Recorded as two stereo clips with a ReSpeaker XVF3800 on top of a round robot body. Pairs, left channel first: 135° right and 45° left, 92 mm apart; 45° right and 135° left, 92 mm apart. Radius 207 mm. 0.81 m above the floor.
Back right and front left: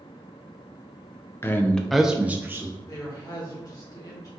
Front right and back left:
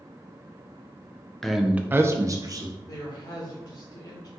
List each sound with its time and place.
1.4 s a man speaking: 125° right, 0.7 m; by 2.8 s 100° left, 1.0 m
2.9 s a man speaking: 90° right, 2.0 m